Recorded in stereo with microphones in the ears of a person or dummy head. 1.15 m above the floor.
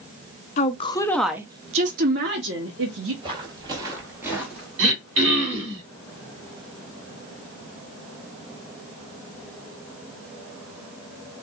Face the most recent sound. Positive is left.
turn(degrees=-70)  # may be behind; listen again after turning